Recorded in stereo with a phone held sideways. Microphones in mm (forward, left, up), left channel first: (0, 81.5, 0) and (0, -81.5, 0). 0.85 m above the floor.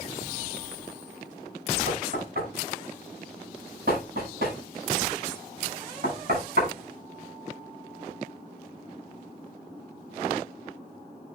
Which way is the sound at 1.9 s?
75° right (ahead or behind).